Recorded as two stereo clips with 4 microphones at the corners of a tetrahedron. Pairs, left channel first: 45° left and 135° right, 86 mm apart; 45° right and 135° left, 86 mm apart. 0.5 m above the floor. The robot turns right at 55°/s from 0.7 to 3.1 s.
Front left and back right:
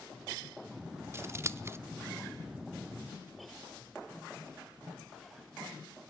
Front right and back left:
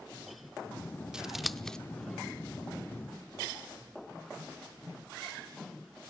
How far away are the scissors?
About 0.6 m.